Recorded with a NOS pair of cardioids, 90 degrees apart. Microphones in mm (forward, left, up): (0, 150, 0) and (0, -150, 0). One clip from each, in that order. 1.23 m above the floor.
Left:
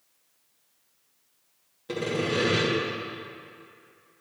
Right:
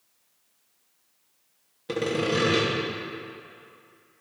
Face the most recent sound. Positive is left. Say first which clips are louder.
# right 2 dB
turn(degrees=-25)